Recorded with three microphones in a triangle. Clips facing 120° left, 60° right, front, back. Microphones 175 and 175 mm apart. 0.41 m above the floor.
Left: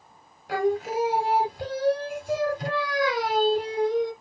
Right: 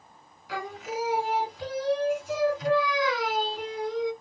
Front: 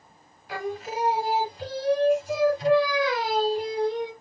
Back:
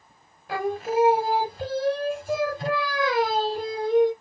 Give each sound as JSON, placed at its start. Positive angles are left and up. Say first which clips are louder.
{"t": 0.5, "sound": "singing", "louder": "left 10 dB, back 6 dB", "azimuth_deg": 145, "distance_m": 0.8}